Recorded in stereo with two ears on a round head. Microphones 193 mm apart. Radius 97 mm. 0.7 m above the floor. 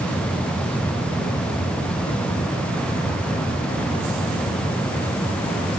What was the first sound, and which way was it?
Only background noise.